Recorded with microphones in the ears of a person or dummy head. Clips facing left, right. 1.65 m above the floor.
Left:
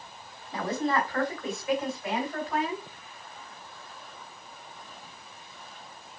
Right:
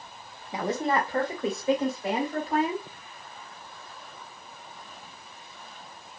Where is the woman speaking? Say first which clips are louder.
Right 1 dB; 10° right (ahead or behind), 1.1 m; by 2.9 s 30° right (ahead or behind), 3.5 m.